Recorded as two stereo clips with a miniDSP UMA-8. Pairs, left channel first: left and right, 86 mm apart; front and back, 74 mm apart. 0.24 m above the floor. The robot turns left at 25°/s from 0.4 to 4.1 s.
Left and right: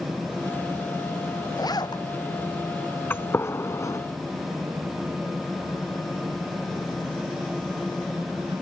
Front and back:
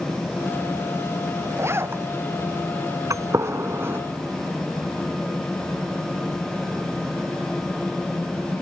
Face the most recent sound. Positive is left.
turn(degrees=125)